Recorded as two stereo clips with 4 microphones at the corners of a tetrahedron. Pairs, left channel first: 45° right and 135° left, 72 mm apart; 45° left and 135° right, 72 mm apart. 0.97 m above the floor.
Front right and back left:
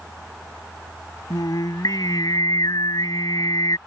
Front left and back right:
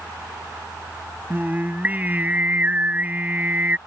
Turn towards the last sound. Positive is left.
turn(degrees=-70)